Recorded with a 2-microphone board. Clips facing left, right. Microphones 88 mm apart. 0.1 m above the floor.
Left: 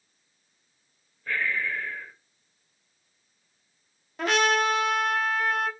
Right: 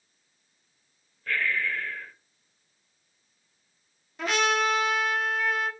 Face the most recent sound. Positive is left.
turn(degrees=50)  # may be behind; listen again after turning